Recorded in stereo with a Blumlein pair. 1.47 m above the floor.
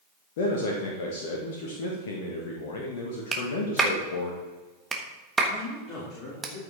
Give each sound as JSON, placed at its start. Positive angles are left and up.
{"t": 0.4, "sound": "a man speaking", "azimuth_deg": 55, "distance_m": 1.7}
{"t": 3.3, "sound": "a clap", "azimuth_deg": -15, "distance_m": 1.4}
{"t": 5.5, "sound": "a man speaking", "azimuth_deg": 25, "distance_m": 3.0}